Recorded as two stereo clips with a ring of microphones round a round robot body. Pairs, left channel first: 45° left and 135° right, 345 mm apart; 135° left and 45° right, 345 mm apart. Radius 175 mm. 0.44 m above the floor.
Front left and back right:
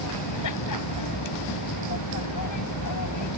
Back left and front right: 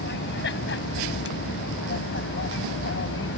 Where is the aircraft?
75° left; by 3.4 s 80° left.